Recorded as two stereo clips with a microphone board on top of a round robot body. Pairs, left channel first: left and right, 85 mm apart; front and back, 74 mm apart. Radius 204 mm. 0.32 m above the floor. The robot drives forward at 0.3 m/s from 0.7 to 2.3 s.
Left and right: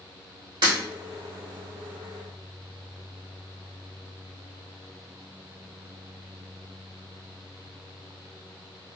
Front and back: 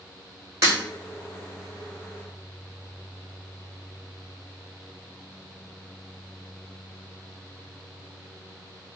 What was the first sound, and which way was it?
Breaking glass, 125° right.